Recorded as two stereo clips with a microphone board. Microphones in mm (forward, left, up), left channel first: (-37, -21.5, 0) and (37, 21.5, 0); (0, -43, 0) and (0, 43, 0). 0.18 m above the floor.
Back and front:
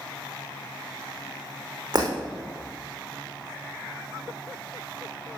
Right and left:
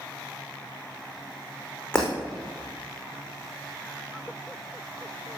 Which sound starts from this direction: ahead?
Breaking glass, at 1.9 s.